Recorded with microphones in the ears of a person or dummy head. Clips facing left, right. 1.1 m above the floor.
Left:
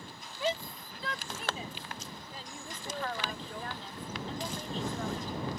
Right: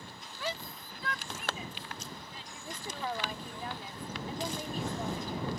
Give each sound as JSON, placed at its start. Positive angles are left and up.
{"t": 0.4, "sound": "a shout", "side_deg": 20}
{"t": 2.6, "sound": "a woman speaking", "side_deg": -10}